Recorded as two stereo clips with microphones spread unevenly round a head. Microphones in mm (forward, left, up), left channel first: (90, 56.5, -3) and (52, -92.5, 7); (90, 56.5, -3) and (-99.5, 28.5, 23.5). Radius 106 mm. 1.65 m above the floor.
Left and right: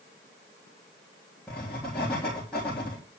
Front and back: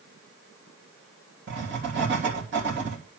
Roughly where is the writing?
Behind.